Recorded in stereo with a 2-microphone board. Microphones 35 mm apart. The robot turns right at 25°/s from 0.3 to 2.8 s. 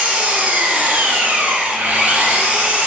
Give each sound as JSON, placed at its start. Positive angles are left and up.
{"t": 0.0, "sound": "an engine running", "azimuth_deg": -130, "distance_m": 0.8}